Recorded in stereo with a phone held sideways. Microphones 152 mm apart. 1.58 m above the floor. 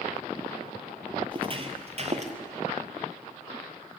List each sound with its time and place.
1.3 s footsteps: 35° right (ahead or behind), 2.5 m; by 2.3 s 50° right (ahead or behind), 2.5 m